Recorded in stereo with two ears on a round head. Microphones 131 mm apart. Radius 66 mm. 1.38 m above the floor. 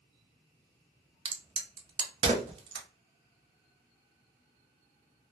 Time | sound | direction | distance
1.2 | a crack | 35° right (ahead or behind) | 0.6 m